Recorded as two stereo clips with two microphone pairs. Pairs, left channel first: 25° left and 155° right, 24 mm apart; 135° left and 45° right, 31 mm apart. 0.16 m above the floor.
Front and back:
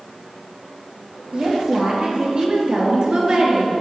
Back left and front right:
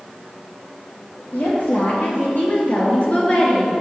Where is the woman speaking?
155° left, 2.5 m; by 3.7 s straight behind, 1.7 m.